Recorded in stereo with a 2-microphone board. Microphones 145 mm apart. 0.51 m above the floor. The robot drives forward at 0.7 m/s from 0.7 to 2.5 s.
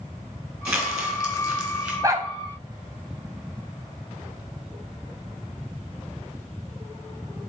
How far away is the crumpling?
About 2.5 m.